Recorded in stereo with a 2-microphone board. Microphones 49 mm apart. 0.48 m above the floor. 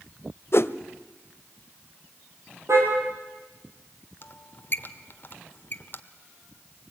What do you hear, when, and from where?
0.5 s a whoosh: 55° left (ahead or behind), 0.7 m
2.7 s a car horn: 70° right (ahead or behind), 6 m
4.2 s a squeak: 45° left (ahead or behind), 1.1 m